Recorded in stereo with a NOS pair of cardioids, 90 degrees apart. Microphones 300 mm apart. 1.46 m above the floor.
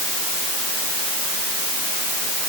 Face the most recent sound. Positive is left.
No sound to turn to.